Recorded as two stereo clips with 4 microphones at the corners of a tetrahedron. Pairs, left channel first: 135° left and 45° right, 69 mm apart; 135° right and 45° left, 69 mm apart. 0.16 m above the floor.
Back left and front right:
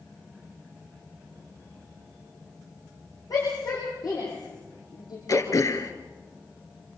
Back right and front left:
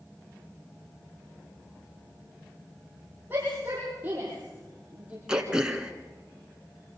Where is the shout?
105° left, 9 m; by 5.2 s 115° left, 6.5 m.